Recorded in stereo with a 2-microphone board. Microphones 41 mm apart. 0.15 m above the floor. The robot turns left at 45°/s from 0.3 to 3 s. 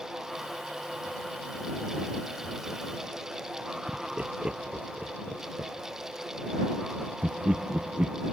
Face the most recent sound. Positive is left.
turn(degrees=-25)  # may be behind; listen again after turning